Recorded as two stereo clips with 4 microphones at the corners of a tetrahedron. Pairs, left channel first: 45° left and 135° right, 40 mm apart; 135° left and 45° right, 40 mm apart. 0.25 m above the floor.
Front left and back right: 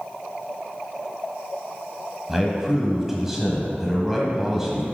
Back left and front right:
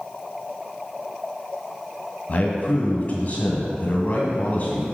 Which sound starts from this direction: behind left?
A man speaking, at 2.3 s.